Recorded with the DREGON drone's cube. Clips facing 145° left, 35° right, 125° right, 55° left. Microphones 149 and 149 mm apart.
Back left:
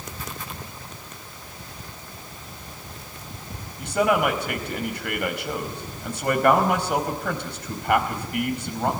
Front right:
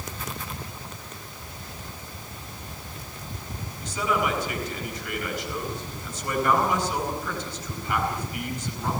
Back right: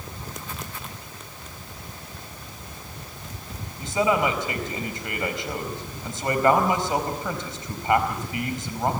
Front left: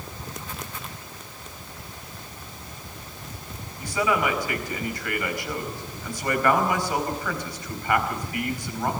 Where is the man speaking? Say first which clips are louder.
Back left 6 dB, back right 2 dB; 170° left, 4.5 m.